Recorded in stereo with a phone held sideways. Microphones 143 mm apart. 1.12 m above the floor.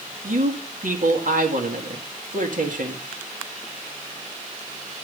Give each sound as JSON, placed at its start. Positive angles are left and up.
{"t": 0.2, "sound": "a man speaking", "side_deg": -70, "distance_m": 2.0}